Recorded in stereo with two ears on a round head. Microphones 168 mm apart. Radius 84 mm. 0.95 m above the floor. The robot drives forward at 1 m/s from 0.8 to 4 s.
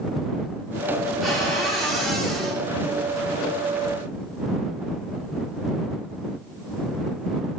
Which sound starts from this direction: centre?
A cupboard door, at 1.2 s.